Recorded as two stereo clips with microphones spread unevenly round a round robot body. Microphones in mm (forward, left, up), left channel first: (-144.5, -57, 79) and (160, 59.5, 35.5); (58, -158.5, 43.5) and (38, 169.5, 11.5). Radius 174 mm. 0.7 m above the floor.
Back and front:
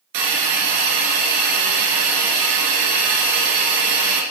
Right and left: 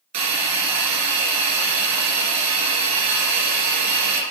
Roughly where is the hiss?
Ahead left.